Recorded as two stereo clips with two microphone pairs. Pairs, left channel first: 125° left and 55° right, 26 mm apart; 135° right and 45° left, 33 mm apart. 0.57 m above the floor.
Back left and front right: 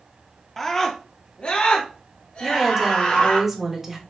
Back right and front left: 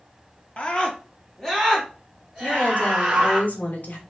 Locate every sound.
0.6 s a scream: 160° right, 0.7 m; by 3.4 s 125° left, 2 m
2.4 s a woman speaking: 130° right, 1.1 m